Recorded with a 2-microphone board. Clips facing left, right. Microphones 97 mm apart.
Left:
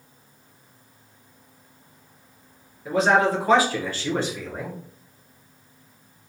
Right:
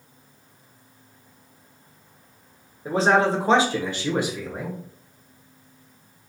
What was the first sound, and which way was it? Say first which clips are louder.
A man speaking: even; 30° right (ahead or behind).